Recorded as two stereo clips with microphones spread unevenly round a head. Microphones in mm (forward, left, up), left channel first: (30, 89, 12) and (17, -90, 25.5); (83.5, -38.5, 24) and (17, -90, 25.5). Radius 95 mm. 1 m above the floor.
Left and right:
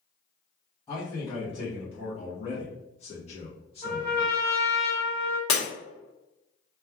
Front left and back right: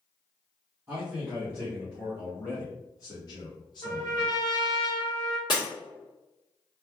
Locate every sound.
0.9 s a man speaking: 150° left, 1.1 m; by 4.3 s 30° left, 1.3 m
3.8 s a trumpet: 5° left, 0.9 m
5.5 s breaking glass: 105° left, 1.1 m